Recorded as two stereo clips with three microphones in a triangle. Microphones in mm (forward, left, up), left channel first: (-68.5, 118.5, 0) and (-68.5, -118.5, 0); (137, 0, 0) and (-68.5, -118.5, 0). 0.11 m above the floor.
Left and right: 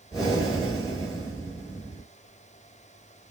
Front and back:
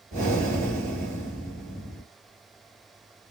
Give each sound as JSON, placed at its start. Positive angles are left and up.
{"t": 0.1, "sound": "breathing", "azimuth_deg": 180, "distance_m": 2.0}